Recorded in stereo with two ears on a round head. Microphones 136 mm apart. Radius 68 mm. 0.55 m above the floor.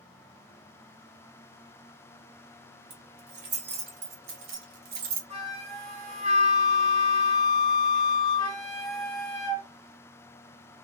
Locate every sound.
2.9 s keys jangling: 80° right, 2.0 m; by 5.2 s 65° right (ahead or behind), 0.8 m
5.3 s a flute: 35° right (ahead or behind), 1.8 m